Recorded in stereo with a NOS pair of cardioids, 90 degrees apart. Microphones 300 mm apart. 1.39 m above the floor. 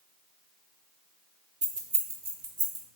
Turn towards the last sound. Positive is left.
turn(degrees=-35)